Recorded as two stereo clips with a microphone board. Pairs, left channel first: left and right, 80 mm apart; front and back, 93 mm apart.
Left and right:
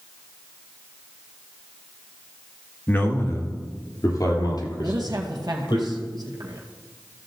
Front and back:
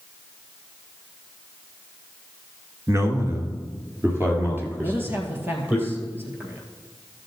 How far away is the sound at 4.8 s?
About 2 m.